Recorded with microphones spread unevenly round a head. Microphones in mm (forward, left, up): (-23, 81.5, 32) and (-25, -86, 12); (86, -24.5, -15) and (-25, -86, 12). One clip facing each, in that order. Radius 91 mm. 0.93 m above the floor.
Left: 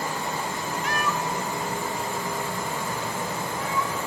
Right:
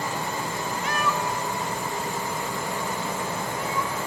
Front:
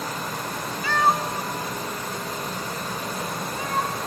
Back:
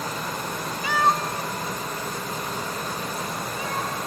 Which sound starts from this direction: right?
A cat meowing, at 0.8 s.